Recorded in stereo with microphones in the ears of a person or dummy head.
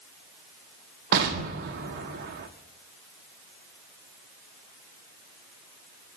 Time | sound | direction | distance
1.1 | an explosion | 50° right (ahead or behind) | 1.4 m